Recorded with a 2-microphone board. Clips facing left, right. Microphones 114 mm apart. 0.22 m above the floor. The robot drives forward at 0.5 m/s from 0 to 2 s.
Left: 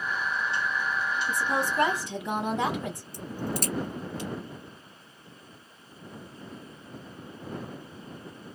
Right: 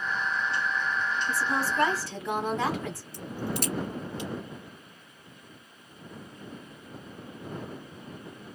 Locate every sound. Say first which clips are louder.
1.3 s a woman speaking: left 1 dB; 20° left (ahead or behind), 1.0 m
3.1 s a crack: even; 40° left (ahead or behind), 1.6 m